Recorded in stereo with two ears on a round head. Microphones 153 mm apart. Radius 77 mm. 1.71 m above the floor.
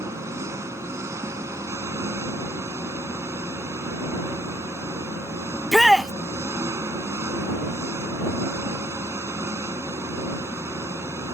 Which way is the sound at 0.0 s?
15° right (ahead or behind).